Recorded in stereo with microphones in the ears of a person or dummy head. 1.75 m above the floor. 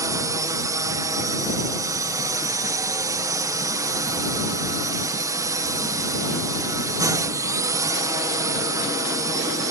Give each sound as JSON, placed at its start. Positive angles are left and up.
{"t": 0.0, "sound": "a drone", "side_deg": -20}